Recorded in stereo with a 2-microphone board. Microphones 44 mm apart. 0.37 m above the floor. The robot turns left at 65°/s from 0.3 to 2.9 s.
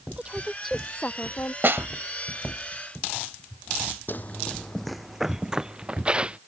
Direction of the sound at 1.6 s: 55° right (ahead or behind).